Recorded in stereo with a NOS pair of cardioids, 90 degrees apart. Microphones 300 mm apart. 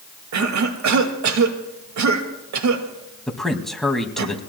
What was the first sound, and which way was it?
A cough, 60° right.